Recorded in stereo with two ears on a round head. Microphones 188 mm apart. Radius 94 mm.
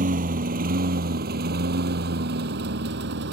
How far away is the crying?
No crying in this recording.